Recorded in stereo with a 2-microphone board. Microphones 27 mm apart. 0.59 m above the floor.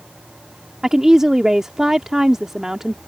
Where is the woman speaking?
20° right (ahead or behind).